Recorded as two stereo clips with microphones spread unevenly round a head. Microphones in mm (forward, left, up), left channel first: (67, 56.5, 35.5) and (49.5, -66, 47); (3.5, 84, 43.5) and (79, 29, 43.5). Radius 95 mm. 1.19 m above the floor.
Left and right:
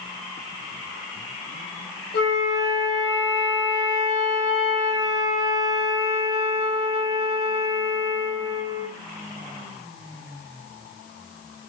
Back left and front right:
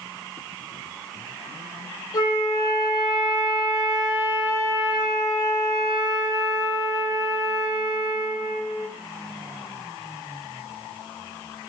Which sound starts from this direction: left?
A flute, at 2.1 s.